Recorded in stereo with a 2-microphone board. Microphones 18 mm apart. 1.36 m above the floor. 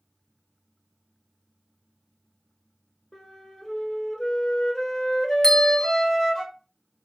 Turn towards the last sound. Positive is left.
turn(degrees=30)  # may be behind; listen again after turning